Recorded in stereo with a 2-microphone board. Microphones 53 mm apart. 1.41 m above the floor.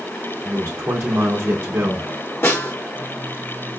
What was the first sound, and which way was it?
A man speaking, 65° right (ahead or behind).